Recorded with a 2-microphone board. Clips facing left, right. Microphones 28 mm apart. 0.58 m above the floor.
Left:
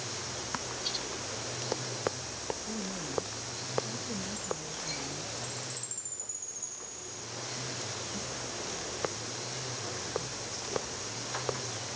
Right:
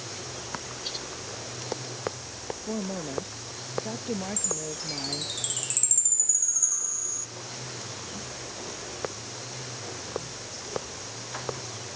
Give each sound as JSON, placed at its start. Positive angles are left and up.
{"t": 2.7, "sound": "a woman speaking", "side_deg": -60}
{"t": 4.4, "sound": "a chime", "side_deg": -80}